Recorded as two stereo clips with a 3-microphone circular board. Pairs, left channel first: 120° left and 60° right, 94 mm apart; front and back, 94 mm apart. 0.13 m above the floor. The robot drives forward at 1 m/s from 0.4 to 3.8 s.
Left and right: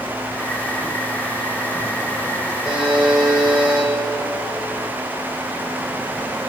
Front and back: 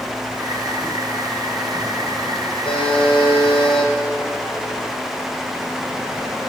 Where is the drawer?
I don't hear a drawer.